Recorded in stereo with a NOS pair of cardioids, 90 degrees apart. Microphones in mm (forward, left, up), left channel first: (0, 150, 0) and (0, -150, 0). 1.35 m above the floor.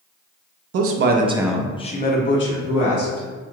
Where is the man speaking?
55° right, 0.6 m; by 3.3 s 50° left, 1.5 m.